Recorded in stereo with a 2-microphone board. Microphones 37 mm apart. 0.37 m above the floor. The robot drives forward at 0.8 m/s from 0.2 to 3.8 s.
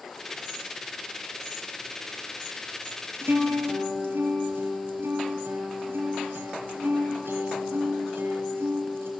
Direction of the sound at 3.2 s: 85° right.